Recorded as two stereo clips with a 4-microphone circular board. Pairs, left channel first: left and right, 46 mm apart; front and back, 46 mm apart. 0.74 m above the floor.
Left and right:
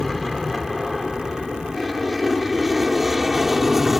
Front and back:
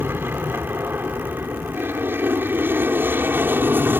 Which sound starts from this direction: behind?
An aircraft, at 0.0 s.